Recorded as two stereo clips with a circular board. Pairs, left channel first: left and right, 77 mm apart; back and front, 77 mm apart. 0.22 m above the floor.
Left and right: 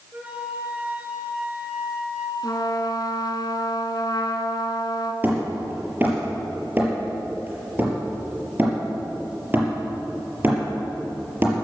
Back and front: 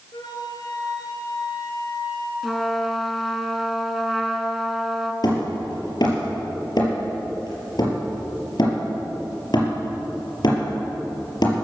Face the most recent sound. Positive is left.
turn(degrees=-155)